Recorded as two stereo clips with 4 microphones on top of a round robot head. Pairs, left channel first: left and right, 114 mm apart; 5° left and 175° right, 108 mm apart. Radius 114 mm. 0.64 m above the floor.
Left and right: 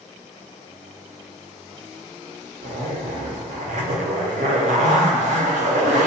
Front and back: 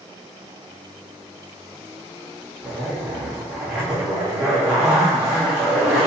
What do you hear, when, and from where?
2.6 s a zipper: 90° right, 0.6 m